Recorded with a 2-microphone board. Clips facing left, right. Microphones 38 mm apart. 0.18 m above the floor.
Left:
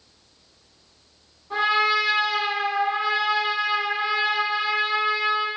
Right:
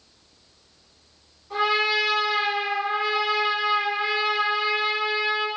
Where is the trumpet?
10° left (ahead or behind), 1.5 m.